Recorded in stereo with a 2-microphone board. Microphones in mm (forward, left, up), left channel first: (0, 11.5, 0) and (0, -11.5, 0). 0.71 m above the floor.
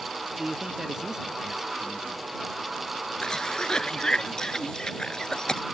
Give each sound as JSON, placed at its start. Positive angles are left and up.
{"t": 0.4, "sound": "a man speaking", "side_deg": -30}
{"t": 3.2, "sound": "a cough", "side_deg": 30}